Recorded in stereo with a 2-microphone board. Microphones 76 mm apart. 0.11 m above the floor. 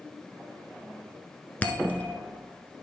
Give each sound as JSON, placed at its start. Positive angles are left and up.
{"t": 1.6, "sound": "a bell", "side_deg": 20, "distance_m": 0.9}